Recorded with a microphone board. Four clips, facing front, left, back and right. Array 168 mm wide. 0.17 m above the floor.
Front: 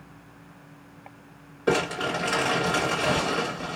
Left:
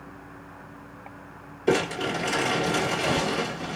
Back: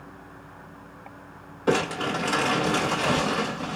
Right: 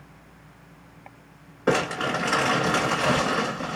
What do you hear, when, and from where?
1.7 s crumpling: 85° right, 2.5 m